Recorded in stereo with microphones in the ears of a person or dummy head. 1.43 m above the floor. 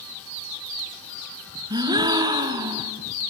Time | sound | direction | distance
1.7 | a gasp | 15° right (ahead or behind) | 1.6 m